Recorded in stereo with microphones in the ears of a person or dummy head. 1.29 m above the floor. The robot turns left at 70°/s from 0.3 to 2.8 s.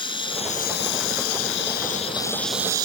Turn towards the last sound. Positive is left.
turn(degrees=-20)